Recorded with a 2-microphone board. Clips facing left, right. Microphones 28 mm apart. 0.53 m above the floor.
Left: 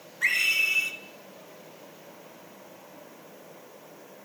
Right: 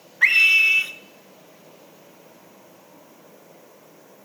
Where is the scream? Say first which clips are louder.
Right 9 dB; 35° right (ahead or behind), 1.2 m.